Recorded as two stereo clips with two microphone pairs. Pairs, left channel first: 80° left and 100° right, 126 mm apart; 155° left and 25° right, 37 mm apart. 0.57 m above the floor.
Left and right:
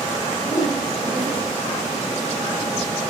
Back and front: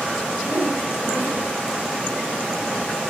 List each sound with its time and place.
0.4 s a whoosh: 10° right, 7.5 m